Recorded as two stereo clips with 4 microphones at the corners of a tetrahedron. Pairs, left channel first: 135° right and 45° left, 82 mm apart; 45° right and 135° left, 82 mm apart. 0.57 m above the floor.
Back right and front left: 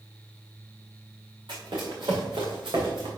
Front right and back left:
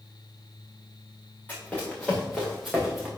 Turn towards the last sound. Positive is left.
turn(degrees=50)